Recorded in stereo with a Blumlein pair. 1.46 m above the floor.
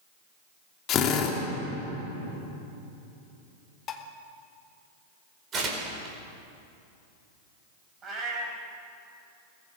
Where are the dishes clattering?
30° left, 1.7 m.